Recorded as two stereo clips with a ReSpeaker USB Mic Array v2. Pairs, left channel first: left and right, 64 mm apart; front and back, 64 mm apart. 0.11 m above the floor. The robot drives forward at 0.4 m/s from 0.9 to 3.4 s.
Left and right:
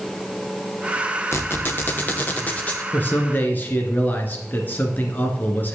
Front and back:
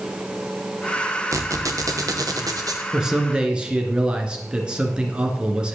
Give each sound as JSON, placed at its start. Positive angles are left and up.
{"t": 1.3, "sound": "a squeak", "azimuth_deg": 140, "distance_m": 0.8}
{"t": 2.9, "sound": "a man speaking", "azimuth_deg": 110, "distance_m": 1.7}